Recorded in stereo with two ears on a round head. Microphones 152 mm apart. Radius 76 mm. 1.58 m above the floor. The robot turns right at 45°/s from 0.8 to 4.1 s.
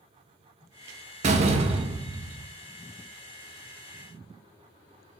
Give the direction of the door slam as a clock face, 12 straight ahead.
2 o'clock.